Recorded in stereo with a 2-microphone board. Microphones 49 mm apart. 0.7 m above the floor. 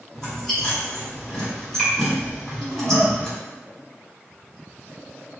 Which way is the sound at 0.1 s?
5° left (ahead or behind).